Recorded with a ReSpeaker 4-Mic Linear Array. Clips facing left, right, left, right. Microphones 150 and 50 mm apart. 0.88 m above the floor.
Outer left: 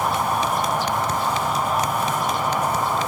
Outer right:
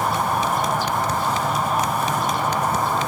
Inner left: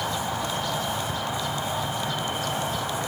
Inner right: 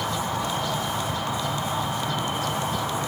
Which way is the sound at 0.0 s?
15° left (ahead or behind).